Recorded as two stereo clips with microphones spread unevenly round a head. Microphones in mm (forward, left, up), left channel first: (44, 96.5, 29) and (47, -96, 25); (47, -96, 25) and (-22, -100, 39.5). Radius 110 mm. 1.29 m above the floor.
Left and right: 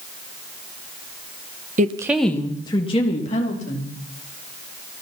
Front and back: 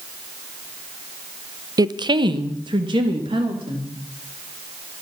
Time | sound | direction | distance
1.8 | a woman speaking | 145° right | 0.7 m